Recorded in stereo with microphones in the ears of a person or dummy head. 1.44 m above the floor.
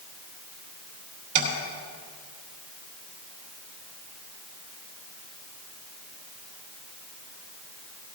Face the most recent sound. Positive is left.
turn(degrees=-60)  # may be behind; listen again after turning